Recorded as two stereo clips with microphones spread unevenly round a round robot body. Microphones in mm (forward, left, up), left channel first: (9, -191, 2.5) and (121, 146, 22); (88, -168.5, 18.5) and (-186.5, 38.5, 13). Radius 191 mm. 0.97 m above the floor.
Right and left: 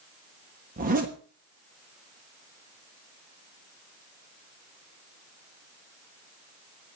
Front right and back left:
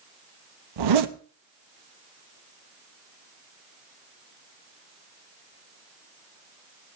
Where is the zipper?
140° left, 1.1 m.